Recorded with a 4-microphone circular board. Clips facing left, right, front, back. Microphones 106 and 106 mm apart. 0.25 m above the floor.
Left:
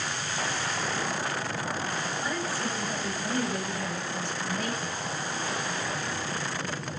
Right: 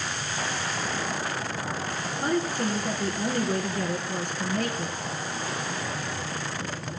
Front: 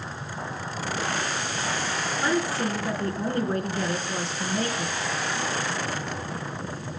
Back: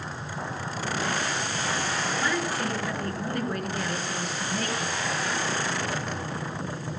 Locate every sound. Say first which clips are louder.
2.2 s a woman speaking: right 10 dB, front 6 dB; 60° right, 3.5 m